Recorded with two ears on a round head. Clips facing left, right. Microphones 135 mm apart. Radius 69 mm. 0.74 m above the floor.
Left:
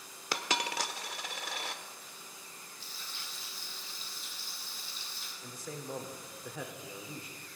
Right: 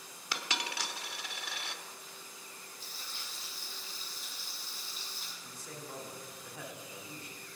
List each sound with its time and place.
0.3 s a dropped coin: 40° left (ahead or behind), 0.9 m
2.8 s frying: 45° right (ahead or behind), 6 m
5.4 s a man speaking: 70° left (ahead or behind), 2.0 m